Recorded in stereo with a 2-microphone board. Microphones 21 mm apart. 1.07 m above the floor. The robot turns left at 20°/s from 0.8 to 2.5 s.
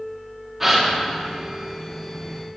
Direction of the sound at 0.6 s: 10° right (ahead or behind).